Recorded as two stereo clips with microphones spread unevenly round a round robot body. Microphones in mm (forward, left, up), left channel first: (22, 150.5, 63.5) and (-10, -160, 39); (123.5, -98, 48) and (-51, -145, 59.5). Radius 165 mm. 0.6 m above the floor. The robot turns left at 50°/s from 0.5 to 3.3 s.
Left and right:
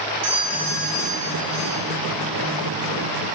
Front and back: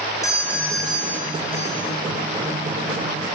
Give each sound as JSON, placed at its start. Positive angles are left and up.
{"t": 0.2, "sound": "a doorbell", "azimuth_deg": -55, "distance_m": 5.0}